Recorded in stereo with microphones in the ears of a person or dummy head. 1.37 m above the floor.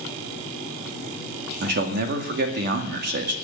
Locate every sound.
1.6 s a man speaking: 55° right (ahead or behind), 2 m